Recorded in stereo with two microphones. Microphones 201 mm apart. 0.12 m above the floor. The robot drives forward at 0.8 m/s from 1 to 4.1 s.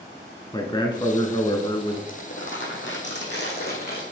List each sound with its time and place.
0.5 s a man speaking: 20° left (ahead or behind), 1.3 m; by 2.0 s 25° left (ahead or behind), 1.3 m
2.1 s crumpling: 80° left, 2.0 m; by 4.0 s 45° left (ahead or behind), 2.5 m